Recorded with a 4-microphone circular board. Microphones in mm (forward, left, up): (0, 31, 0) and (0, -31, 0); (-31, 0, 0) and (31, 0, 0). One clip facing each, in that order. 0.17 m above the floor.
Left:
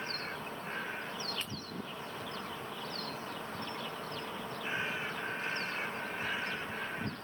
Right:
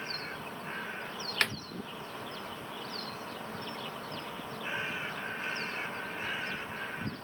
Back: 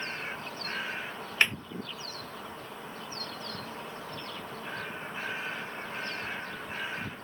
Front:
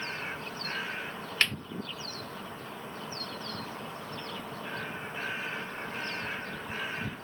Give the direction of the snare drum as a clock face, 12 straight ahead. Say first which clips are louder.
Right 12 dB, back 3 dB; 3 o'clock.